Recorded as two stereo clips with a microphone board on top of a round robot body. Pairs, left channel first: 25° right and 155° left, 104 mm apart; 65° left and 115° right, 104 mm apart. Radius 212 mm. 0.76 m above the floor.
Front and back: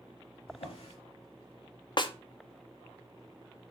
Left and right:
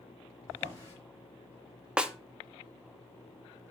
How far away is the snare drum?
About 1.1 m.